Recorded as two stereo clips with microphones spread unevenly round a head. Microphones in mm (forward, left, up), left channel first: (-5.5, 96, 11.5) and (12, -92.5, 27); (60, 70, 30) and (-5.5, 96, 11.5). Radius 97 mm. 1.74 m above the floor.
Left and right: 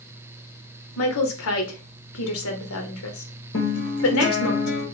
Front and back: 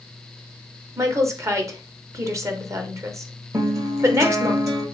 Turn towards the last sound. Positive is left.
turn(degrees=110)